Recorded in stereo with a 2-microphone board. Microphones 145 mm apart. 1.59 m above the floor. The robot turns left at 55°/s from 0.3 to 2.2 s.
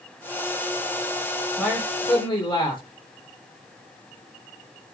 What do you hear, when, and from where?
1.6 s a man speaking: 175° right, 5.5 m; by 2.8 s 150° left, 5.5 m